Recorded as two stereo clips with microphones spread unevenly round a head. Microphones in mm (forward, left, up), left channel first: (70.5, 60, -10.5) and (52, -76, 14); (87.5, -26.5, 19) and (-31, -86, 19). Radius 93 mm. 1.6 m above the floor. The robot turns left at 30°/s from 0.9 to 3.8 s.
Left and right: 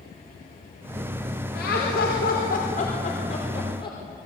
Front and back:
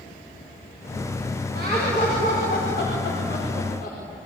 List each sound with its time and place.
1.6 s laughter: 95° left, 5 m; by 4.0 s 25° left, 5 m